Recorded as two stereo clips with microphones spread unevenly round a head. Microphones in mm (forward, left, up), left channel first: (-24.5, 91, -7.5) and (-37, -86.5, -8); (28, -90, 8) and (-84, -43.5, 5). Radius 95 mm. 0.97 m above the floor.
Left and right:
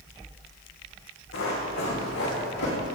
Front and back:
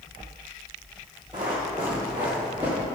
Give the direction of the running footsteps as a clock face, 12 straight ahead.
9 o'clock.